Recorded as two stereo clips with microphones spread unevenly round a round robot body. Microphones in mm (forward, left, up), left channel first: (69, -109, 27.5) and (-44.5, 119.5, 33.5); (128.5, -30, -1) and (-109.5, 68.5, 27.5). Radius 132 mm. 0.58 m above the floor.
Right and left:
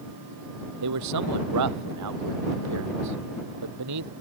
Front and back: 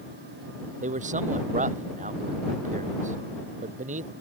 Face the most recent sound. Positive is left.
turn(degrees=95)